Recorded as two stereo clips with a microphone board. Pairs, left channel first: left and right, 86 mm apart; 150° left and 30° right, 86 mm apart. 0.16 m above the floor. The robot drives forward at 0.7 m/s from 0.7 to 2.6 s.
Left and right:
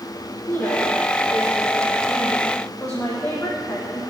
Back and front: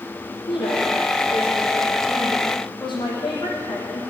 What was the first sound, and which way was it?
A woman speaking, 160° left.